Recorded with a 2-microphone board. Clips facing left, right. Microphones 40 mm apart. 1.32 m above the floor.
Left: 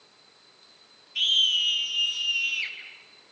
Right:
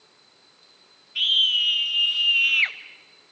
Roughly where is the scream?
Centre.